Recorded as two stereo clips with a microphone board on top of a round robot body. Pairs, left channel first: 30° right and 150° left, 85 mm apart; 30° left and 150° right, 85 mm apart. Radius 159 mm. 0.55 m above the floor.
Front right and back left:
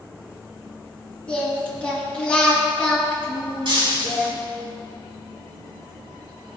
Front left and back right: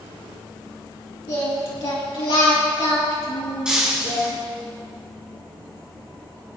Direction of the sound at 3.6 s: 130° left.